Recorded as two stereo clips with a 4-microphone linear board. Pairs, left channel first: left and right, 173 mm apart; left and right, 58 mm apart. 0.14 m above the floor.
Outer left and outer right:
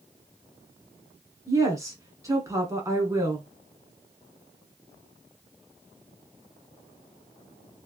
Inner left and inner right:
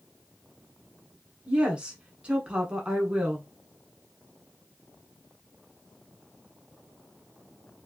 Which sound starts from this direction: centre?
A woman speaking, at 1.5 s.